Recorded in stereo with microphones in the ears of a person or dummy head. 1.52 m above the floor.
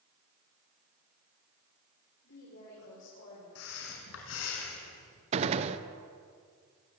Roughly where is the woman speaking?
Left.